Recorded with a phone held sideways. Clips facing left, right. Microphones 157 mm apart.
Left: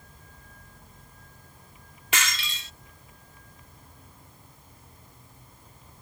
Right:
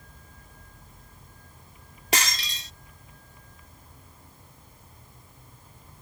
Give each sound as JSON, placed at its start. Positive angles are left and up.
{"t": 2.1, "sound": "breaking glass", "side_deg": -40}